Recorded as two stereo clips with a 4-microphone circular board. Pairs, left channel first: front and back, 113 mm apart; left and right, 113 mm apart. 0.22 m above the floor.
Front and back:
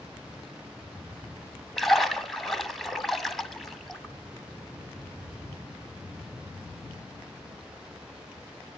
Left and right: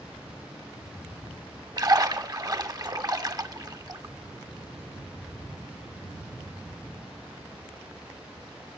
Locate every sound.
1.8 s a splash: 90° right, 1.5 m